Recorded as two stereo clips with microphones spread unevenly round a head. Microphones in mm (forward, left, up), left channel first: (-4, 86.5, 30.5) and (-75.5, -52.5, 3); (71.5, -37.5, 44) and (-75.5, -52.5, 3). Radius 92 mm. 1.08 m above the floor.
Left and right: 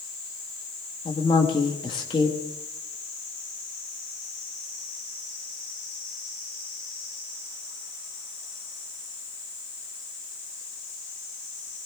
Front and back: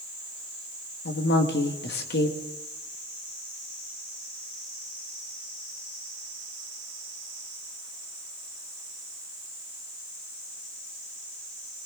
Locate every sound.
1.1 s a woman speaking: 5° right, 1.4 m